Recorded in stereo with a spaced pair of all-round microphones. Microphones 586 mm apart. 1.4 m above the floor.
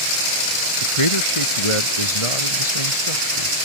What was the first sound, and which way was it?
A man speaking, 55° left (ahead or behind).